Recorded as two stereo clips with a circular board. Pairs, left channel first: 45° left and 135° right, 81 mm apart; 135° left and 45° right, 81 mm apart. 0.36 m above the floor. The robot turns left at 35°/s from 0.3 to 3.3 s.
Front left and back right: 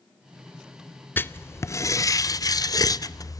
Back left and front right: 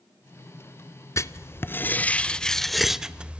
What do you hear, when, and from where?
1.2 s writing: 100° left, 0.6 m; by 3.4 s 25° left, 0.6 m